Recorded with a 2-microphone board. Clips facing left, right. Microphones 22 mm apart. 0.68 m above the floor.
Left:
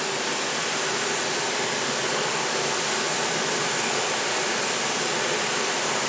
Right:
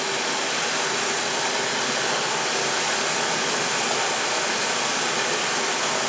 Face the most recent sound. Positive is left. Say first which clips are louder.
# right 2 dB
turn(degrees=-75)  # may be behind; listen again after turning